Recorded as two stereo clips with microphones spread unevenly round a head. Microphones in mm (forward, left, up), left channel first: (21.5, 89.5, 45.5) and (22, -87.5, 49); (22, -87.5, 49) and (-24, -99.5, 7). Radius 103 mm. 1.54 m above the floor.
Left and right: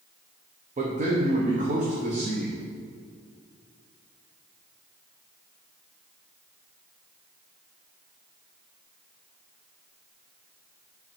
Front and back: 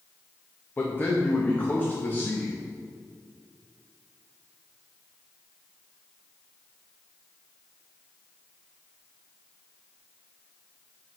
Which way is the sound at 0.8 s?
40° right.